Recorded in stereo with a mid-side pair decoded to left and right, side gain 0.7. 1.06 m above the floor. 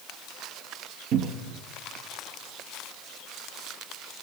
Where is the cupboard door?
55° right, 0.7 m.